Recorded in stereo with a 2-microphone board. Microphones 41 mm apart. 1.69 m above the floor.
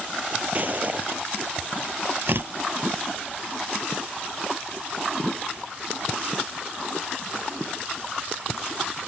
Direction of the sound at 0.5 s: 40° right (ahead or behind).